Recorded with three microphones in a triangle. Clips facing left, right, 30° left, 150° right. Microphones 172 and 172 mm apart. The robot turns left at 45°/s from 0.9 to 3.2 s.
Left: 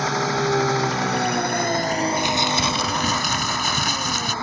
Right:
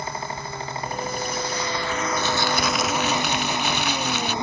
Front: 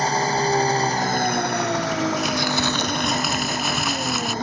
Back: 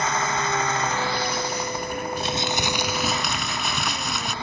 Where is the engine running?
85° left; by 4.4 s 20° right.